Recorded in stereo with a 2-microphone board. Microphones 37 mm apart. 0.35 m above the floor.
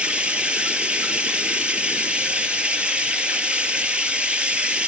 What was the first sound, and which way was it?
Running water, 30° right (ahead or behind).